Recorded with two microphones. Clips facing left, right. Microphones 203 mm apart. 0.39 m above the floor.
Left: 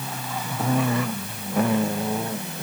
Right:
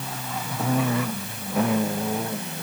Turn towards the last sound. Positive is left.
No sound to turn to.